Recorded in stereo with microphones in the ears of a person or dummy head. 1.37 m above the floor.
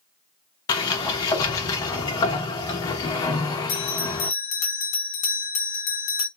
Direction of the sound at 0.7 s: 20° left (ahead or behind).